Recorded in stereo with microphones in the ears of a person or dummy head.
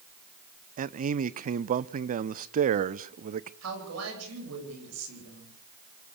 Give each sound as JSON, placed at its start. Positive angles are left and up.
{"t": 0.8, "sound": "a man speaking", "side_deg": -40, "distance_m": 0.7}
{"t": 3.6, "sound": "a woman speaking", "side_deg": -90, "distance_m": 9.5}